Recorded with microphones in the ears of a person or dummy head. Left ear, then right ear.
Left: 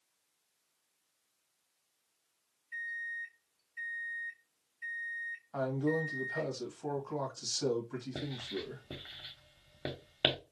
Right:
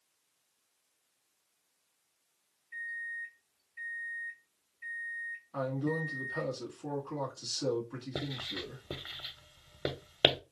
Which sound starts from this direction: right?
Writing, at 8.2 s.